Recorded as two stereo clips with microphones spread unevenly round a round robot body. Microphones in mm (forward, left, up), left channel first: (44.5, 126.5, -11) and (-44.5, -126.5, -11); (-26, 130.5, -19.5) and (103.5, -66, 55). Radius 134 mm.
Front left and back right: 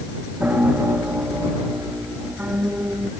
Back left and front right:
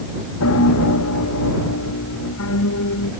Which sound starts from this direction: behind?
A piano, at 0.4 s.